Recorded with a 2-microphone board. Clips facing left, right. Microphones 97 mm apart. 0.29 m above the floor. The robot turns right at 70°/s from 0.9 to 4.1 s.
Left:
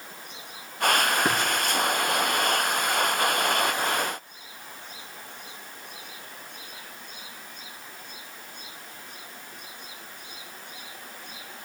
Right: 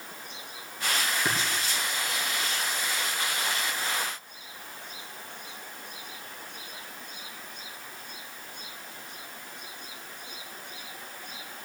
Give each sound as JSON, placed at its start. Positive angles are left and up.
{"t": 1.2, "sound": "tapping", "side_deg": 40, "distance_m": 3.5}